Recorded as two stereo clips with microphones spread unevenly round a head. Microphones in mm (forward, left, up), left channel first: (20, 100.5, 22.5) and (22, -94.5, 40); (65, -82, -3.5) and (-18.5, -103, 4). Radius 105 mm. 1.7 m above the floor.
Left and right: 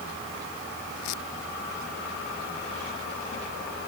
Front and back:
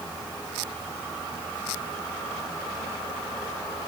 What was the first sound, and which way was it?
Only background noise.